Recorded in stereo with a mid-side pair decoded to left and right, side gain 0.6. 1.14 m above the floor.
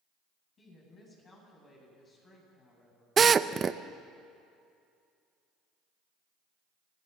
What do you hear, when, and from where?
0.6 s a woman speaking: 35° left, 9.5 m
3.2 s a drill: 30° right, 0.7 m